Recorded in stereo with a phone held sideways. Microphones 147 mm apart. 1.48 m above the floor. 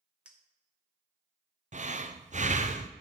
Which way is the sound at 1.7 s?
55° right (ahead or behind).